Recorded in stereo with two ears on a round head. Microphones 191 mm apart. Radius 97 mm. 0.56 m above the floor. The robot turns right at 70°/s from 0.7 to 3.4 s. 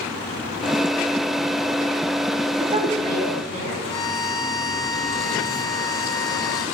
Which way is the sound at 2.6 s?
165° right.